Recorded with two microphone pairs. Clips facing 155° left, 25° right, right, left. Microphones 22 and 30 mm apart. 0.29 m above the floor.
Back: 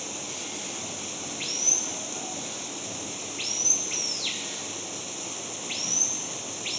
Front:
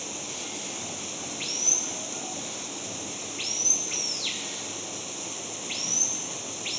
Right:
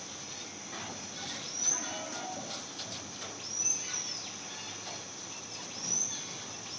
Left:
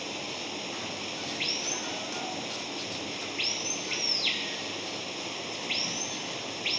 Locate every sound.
0.0 s running water: 60° left